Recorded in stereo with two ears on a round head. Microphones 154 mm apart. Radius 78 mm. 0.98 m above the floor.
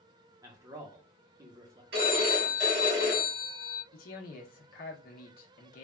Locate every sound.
0.4 s a man speaking: 20° right (ahead or behind), 0.8 m
1.9 s a phone ringing: 85° right, 1.3 m
3.9 s a man speaking: 60° left (ahead or behind), 0.7 m